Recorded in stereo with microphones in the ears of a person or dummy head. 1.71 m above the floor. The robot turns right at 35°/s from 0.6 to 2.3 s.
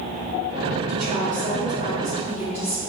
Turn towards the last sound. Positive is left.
turn(degrees=-10)